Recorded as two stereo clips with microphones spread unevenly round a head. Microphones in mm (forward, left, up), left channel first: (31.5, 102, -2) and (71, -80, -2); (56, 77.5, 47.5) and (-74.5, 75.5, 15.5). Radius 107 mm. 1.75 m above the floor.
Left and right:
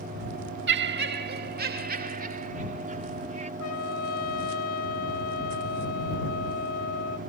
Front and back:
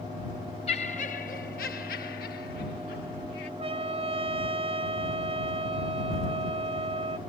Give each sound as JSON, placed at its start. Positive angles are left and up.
{"t": 0.7, "sound": "laughter", "azimuth_deg": -55}
{"t": 3.6, "sound": "a trumpet", "azimuth_deg": 135}